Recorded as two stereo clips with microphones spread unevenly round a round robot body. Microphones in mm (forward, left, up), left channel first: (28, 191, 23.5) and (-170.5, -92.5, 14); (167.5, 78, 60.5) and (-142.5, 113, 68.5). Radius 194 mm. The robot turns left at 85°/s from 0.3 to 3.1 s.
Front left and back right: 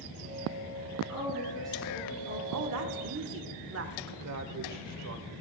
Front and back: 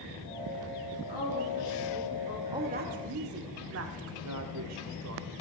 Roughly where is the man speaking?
Behind right.